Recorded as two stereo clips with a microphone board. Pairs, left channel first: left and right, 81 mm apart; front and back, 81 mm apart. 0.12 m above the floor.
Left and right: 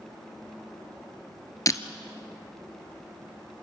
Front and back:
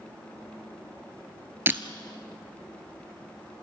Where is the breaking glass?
125° left, 1.1 m.